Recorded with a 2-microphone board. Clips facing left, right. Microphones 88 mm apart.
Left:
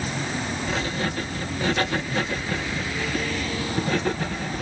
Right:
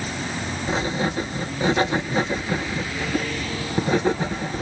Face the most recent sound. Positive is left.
turn(degrees=-20)  # may be behind; listen again after turning